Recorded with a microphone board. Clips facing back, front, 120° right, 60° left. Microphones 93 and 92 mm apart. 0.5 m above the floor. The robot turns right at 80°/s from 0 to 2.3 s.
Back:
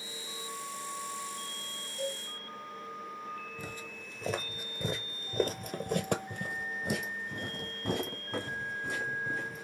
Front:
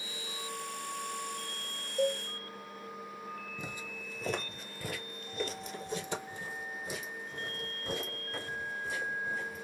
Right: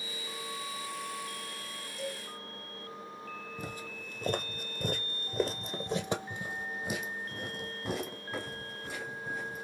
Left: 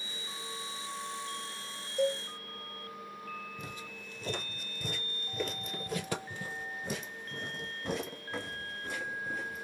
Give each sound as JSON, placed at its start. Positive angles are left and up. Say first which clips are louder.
{"t": 2.0, "sound": "a cowbell", "louder": "front 7 dB, left 10 dB", "azimuth_deg": 30, "distance_m": 0.8}
{"t": 3.6, "sound": "footsteps", "louder": "even, right 3 dB", "azimuth_deg": -70, "distance_m": 1.0}